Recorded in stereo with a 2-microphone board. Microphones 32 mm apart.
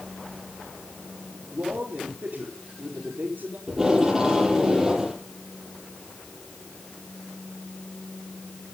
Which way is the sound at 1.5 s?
70° right (ahead or behind).